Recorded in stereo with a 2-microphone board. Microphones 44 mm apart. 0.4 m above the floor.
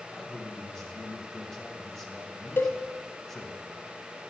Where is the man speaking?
10° left (ahead or behind), 2 m.